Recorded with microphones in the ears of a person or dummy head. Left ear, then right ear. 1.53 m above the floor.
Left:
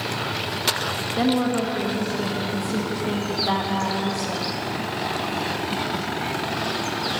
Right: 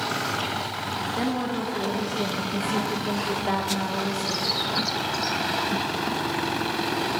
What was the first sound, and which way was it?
A woman speaking, 10° right (ahead or behind).